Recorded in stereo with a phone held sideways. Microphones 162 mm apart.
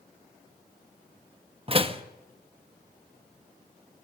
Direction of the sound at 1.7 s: 35° right (ahead or behind).